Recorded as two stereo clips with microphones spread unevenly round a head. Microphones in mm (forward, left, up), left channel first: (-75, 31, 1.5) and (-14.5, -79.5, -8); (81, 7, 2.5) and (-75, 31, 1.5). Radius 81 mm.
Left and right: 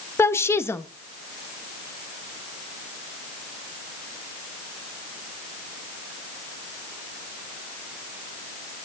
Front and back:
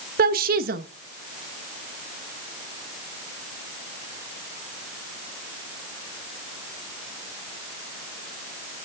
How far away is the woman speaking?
About 1.2 m.